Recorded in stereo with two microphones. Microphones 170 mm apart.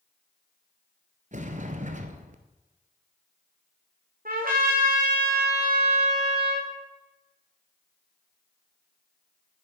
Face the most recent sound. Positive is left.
turn(degrees=-55)  # may be behind; listen again after turning